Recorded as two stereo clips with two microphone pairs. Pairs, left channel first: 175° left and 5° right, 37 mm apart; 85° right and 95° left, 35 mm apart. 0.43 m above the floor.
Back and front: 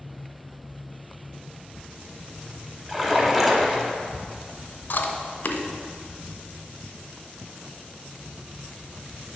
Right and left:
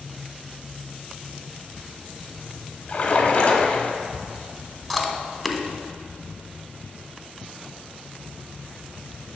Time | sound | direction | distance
2.9 | a splash | 85° right | 1.2 m
4.9 | chewing | 175° right | 0.9 m